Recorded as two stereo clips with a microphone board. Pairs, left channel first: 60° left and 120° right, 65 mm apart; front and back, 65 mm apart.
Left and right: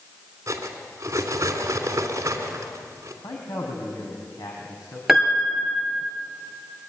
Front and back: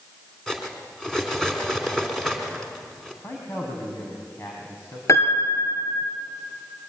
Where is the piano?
40° right, 2.5 m.